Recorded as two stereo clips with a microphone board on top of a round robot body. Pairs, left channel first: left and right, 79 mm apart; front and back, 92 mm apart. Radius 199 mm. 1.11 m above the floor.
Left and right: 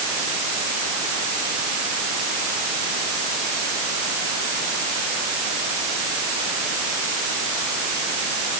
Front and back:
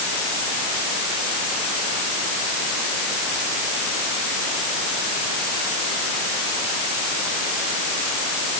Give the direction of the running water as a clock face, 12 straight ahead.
I don't hear running water.